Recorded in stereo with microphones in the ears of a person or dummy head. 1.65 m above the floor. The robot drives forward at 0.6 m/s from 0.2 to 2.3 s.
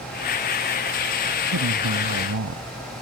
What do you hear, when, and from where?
1.5 s a man speaking: 65° right (ahead or behind)